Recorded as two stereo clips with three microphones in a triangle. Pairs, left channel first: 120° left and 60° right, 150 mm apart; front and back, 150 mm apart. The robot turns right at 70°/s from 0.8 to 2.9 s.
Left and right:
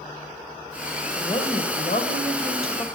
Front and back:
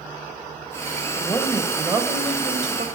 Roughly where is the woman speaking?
Ahead left.